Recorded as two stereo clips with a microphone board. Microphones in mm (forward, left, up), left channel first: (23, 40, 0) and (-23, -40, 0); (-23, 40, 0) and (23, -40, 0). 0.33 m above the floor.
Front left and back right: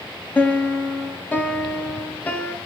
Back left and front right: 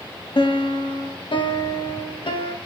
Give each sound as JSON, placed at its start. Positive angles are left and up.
{"t": 0.3, "sound": "a piano", "azimuth_deg": 135, "distance_m": 0.5}